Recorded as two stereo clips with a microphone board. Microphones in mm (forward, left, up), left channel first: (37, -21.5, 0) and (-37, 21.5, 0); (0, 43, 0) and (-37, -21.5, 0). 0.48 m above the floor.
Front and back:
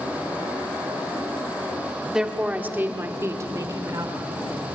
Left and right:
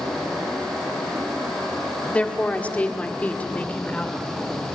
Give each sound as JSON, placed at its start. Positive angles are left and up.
{"t": 2.1, "sound": "a woman speaking", "azimuth_deg": 85, "distance_m": 1.3}